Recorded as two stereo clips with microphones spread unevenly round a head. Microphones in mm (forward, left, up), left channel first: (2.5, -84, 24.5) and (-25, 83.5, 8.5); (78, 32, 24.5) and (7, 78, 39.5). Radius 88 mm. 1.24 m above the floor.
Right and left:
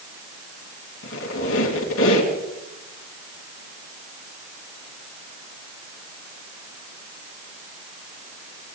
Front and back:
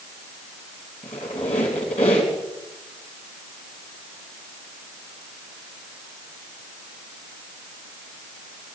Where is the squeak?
75° right, 3 m.